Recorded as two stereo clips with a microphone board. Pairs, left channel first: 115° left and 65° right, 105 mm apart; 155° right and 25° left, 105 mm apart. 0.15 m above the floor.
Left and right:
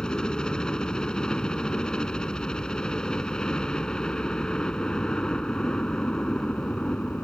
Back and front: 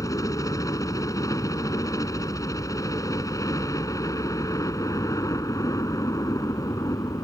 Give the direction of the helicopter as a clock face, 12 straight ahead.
6 o'clock.